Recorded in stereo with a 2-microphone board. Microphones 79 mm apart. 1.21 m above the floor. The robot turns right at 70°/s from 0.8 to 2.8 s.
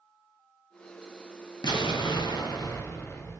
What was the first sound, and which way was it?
An explosion, 65° left.